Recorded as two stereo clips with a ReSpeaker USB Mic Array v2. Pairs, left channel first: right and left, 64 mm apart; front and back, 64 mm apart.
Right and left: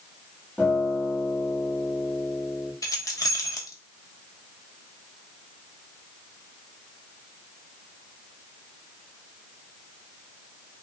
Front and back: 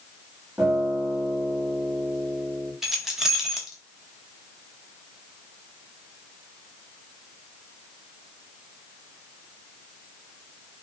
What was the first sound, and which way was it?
A guitar, 135° right.